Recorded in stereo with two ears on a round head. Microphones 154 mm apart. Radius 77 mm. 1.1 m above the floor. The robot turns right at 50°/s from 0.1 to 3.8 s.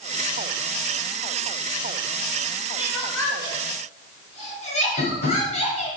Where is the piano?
No piano in this recording.